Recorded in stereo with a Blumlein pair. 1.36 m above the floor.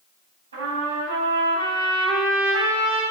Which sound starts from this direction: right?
A trumpet, at 0.5 s.